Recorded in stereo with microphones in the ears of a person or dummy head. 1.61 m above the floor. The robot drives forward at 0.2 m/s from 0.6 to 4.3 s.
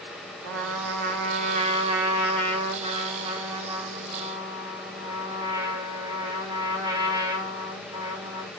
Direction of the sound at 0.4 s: 45° right (ahead or behind).